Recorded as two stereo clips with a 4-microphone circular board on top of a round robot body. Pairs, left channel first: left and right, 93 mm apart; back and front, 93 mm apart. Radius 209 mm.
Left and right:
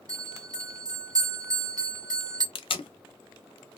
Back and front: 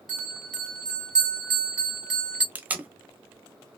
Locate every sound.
0.1 s a bell: 80° right, 2.0 m
2.5 s tape being pulled: 75° left, 0.7 m